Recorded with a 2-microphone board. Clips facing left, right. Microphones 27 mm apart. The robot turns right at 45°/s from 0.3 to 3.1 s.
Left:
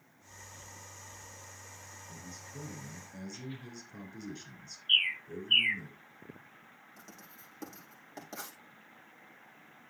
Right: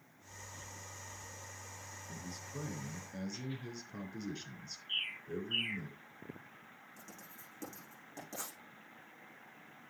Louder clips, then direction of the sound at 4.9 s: Left 10 dB; 65° left (ahead or behind).